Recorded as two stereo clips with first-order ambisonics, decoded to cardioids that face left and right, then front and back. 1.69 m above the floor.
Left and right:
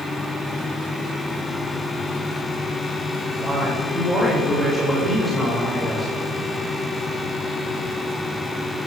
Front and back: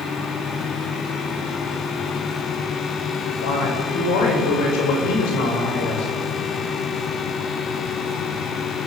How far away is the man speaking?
About 7.5 m.